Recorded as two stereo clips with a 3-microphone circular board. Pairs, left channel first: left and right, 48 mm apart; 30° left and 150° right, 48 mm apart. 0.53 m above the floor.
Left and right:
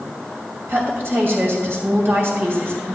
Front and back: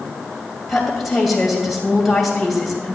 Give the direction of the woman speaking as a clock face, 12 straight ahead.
2 o'clock.